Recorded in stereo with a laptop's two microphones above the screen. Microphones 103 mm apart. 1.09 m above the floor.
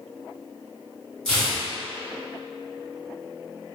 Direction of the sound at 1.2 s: 5° left (ahead or behind).